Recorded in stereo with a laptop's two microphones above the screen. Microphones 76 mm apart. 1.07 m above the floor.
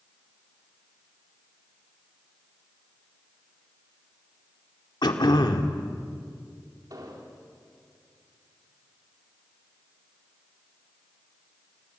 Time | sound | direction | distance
5.0 | throat clearing | 75° left (ahead or behind) | 1.9 m
6.9 | an explosion | 55° right (ahead or behind) | 3.5 m